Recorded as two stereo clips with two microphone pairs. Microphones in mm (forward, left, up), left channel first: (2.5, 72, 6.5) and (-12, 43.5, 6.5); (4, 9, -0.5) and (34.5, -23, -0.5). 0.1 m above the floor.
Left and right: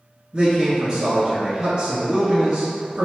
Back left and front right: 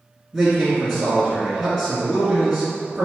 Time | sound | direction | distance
0.3 | a man speaking | 130° right | 1.6 m